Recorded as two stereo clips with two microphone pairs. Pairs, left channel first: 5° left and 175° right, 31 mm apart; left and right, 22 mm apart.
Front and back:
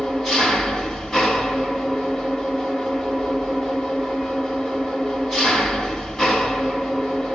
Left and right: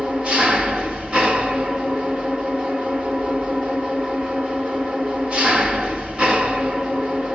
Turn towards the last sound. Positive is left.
turn(degrees=-65)